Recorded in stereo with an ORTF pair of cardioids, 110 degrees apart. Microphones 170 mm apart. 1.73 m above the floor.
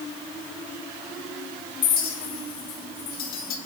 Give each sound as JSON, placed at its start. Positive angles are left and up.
{"t": 1.8, "sound": "a clink", "azimuth_deg": 60, "distance_m": 2.0}